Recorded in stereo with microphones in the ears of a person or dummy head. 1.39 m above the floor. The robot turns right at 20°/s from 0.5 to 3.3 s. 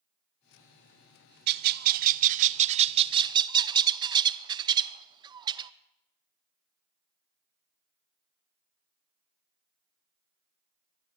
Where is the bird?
65° right, 0.6 m; by 5.7 s 30° right, 0.6 m.